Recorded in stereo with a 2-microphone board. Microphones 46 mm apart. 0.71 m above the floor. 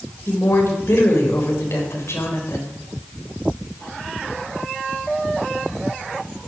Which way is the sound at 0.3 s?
70° left (ahead or behind).